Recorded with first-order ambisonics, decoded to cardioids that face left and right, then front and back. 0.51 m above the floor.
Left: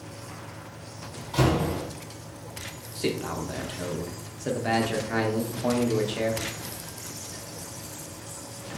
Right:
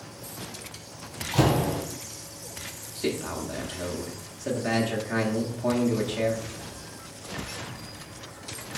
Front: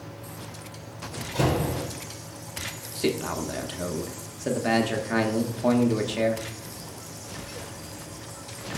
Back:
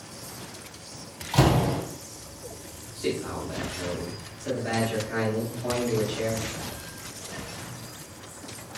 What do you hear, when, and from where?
1.3 s a door slam: 170° right, 2.5 m
3.0 s a man speaking: 10° left, 0.7 m